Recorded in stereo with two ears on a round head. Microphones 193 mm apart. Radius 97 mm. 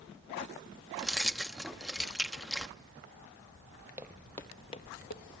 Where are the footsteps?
10° right (ahead or behind), 1.3 m; by 5.2 s 50° left (ahead or behind), 1.3 m.